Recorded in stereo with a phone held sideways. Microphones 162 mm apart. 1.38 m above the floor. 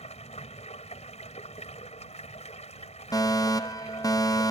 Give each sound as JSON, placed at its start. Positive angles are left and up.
{"t": 0.0, "sound": "running water", "side_deg": 45}
{"t": 3.1, "sound": "a fire alarm", "side_deg": 20}